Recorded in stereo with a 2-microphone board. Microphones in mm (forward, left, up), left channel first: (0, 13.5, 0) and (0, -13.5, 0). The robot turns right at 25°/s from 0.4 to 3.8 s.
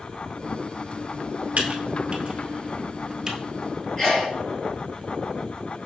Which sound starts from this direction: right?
Typing on a keyboard, at 1.6 s.